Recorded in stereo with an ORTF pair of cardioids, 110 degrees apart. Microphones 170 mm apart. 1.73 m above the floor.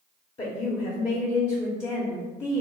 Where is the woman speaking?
35° left, 0.7 m.